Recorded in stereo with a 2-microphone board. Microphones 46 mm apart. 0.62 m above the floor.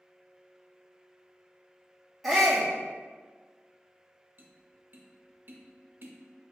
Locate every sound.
2.2 s a shout: centre (ahead or behind), 1.2 m
4.4 s tapping: 50° right (ahead or behind), 0.5 m